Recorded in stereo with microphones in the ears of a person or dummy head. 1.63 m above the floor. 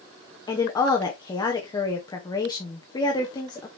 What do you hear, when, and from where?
0.5 s a woman speaking: 15° left (ahead or behind), 1.0 m